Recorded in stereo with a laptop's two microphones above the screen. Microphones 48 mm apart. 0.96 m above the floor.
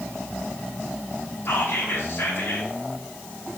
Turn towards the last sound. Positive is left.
turn(degrees=50)  # may be behind; listen again after turning